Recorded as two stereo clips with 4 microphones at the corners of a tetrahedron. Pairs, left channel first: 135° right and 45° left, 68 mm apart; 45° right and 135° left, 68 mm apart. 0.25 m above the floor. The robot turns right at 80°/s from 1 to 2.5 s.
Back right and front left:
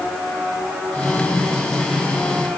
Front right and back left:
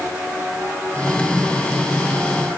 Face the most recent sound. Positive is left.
No sound to turn to.